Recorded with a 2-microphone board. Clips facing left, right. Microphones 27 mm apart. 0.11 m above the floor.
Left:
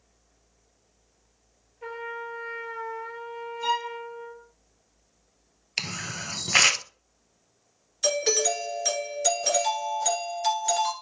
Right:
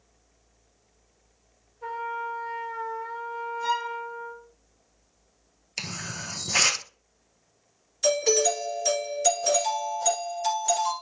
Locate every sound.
1.8 s a trumpet: 30° left (ahead or behind), 1.2 m
3.6 s a violin: 60° left (ahead or behind), 2.5 m
5.8 s a camera shutter: 35° left (ahead or behind), 0.6 m
8.0 s a doorbell: 20° left (ahead or behind), 1.7 m